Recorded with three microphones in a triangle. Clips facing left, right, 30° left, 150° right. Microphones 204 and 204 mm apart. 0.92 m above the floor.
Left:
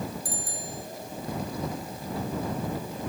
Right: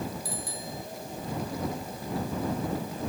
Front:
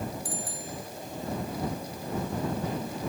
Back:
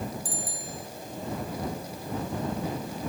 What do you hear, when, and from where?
0.2 s a bicycle bell: 50° left